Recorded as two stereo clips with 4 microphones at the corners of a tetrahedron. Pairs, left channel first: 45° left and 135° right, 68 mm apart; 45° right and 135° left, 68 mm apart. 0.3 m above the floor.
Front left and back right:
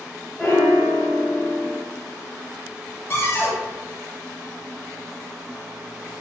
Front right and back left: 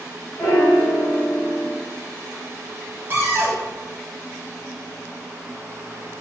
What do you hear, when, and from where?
0.4 s a piano: 20° right, 1.5 m
3.1 s a cupboard door: 90° left, 0.6 m